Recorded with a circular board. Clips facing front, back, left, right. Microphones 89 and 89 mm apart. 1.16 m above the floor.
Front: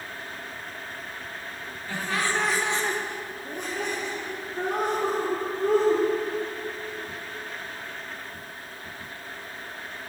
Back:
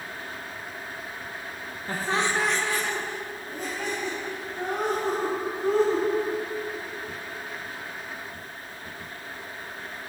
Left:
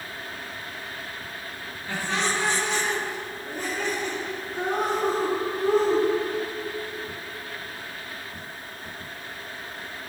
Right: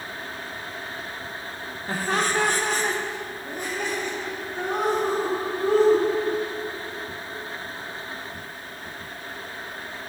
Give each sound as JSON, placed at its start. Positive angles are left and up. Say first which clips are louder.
{"t": 1.9, "sound": "laughter", "louder": "back 2 dB, right 3 dB", "azimuth_deg": -140, "distance_m": 1.1}